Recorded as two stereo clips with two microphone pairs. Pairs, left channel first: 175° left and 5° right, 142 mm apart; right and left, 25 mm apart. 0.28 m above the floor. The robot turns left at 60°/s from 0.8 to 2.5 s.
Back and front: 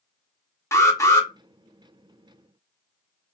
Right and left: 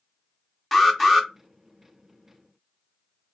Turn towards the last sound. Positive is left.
turn(degrees=85)